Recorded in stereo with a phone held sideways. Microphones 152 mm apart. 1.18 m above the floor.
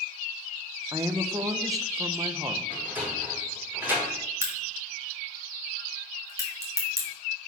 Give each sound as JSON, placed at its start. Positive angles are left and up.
{"t": 0.9, "sound": "a woman speaking", "side_deg": -20, "distance_m": 0.8}
{"t": 2.7, "sound": "a sliding door", "side_deg": -15, "distance_m": 3.5}
{"t": 4.4, "sound": "a crack", "side_deg": -20, "distance_m": 2.5}